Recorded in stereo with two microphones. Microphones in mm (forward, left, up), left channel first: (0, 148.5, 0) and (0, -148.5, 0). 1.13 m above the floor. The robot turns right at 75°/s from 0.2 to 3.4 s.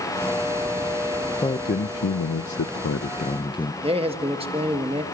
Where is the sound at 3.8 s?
20° right (ahead or behind), 1.5 m.